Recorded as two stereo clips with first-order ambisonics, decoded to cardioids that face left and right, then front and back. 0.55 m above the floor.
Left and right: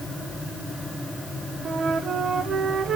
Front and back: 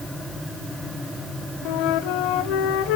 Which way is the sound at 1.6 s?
25° right.